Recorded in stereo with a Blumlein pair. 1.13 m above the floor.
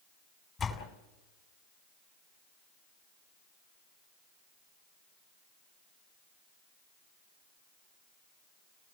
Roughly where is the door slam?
Ahead.